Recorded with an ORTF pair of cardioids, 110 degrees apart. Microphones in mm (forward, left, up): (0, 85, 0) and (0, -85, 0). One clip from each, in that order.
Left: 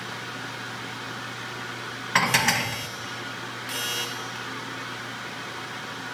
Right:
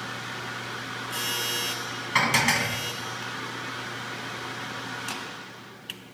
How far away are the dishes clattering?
About 0.7 m.